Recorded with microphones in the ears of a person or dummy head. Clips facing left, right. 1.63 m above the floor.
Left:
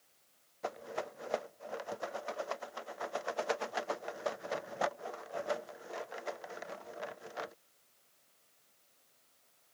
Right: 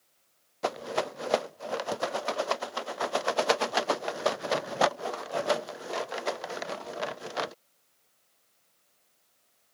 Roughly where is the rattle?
Right.